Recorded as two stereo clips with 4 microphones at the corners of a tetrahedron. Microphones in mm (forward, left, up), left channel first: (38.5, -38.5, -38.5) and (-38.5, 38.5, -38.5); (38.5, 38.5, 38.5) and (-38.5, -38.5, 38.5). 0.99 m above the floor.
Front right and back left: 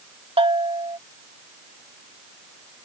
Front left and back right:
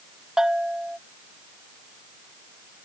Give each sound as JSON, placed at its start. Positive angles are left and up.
{"t": 0.4, "sound": "a bell", "azimuth_deg": 140}